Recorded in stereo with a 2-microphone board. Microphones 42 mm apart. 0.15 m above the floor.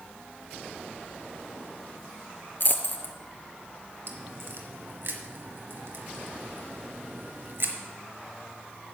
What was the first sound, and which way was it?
A dropped coin, 55° left (ahead or behind).